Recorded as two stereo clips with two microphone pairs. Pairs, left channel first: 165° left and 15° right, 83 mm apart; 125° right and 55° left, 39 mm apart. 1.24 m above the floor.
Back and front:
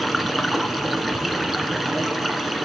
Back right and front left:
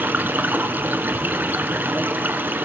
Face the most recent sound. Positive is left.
turn(degrees=70)